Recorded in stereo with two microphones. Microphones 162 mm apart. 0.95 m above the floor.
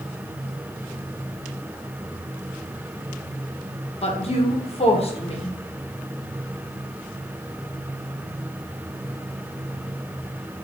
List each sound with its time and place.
4.0 s a woman speaking: 40° left (ahead or behind), 0.9 m